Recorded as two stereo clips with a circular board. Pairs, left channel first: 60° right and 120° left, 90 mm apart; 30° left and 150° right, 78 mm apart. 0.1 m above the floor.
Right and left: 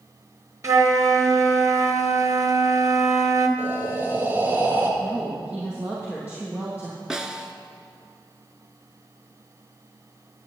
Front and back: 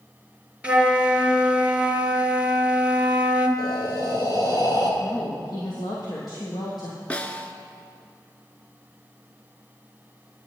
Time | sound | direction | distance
0.6 | a flute | 145° left | 1.4 m
3.6 | breathing | 55° left | 2.5 m
5.0 | a woman speaking | 50° left | 3 m
7.1 | a snare drum | 55° left | 1.0 m